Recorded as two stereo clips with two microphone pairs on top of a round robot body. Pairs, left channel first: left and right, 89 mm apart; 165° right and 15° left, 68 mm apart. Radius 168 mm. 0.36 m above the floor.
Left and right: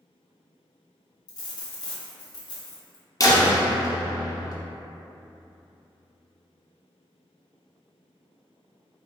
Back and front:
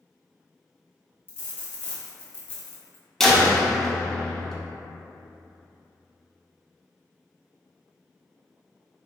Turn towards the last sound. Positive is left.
turn(degrees=110)